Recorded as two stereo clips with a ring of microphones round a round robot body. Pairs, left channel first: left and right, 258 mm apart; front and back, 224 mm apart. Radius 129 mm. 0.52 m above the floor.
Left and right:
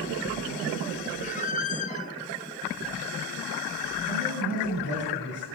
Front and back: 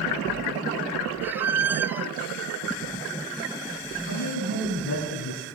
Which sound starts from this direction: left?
A squeak, at 1.2 s.